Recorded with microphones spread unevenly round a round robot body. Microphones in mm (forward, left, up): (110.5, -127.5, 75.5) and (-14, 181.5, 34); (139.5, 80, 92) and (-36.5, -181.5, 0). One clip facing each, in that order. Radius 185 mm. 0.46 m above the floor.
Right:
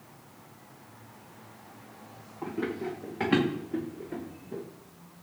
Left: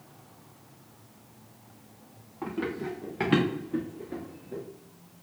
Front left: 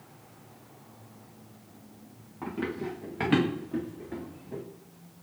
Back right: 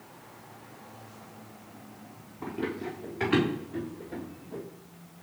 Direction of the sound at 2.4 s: 55° left.